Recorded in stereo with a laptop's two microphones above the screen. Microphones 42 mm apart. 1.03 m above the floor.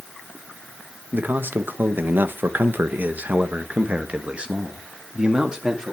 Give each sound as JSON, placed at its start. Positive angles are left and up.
{"t": 1.1, "sound": "a man speaking", "side_deg": -45, "distance_m": 1.3}